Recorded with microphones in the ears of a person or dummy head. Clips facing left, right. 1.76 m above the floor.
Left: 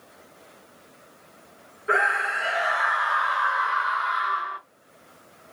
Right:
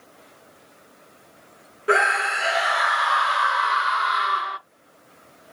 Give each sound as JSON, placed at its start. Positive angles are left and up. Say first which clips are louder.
{"t": 1.9, "sound": "a scream", "louder": "right 5 dB", "side_deg": -55, "distance_m": 0.8}